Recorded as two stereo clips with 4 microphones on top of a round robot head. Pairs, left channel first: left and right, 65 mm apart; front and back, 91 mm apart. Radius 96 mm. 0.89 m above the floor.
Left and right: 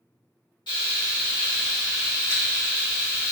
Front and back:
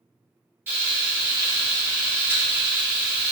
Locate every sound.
0.7 s frying: 120° left, 0.6 m